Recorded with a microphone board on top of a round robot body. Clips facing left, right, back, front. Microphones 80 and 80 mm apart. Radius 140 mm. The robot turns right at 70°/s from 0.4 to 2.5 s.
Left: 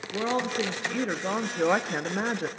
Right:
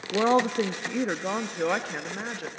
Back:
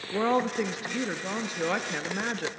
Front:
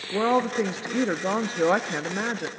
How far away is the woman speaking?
About 0.8 m.